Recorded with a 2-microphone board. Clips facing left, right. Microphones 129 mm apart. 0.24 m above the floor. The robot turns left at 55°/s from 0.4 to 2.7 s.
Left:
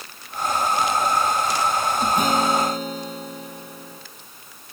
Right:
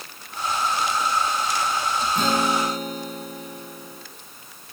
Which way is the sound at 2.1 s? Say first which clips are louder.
Left 1 dB; 165° left.